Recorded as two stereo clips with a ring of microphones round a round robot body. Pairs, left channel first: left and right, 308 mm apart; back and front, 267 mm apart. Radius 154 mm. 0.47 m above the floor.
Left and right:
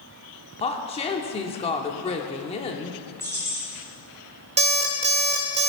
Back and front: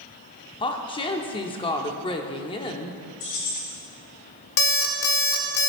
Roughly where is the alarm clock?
Behind.